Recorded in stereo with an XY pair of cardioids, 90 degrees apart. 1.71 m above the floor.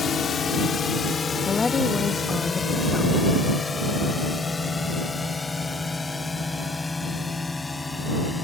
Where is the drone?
60° left; by 8.4 s 25° left.